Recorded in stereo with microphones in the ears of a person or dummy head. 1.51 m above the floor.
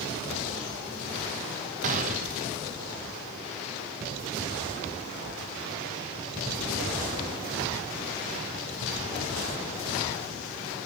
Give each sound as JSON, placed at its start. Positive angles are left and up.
{"t": 1.8, "sound": "a gunshot", "side_deg": -45, "distance_m": 1.0}